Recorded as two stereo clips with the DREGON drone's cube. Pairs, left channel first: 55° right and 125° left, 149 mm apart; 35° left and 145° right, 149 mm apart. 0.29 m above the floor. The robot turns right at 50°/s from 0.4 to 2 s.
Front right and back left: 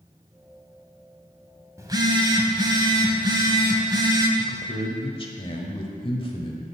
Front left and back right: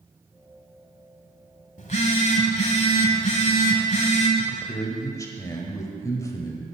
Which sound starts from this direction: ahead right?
A man speaking, at 4.4 s.